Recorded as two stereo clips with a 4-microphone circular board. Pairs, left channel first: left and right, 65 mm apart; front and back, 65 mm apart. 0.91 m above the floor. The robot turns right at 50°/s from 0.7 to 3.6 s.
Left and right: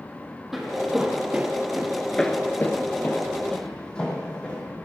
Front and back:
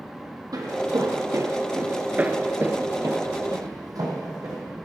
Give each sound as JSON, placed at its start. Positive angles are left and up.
{"t": 0.5, "sound": "footsteps", "azimuth_deg": -175, "distance_m": 2.5}